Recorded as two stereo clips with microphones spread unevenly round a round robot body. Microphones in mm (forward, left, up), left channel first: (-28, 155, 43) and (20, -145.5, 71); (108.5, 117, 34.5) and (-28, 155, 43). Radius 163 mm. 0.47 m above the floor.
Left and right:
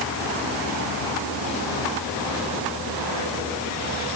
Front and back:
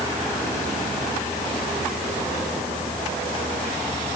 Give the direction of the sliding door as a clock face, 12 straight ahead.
No sliding door in this recording.